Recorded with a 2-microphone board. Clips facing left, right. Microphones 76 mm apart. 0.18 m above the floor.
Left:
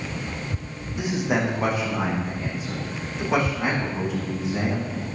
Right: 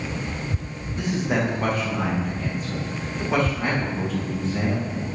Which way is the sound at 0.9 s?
10° left (ahead or behind).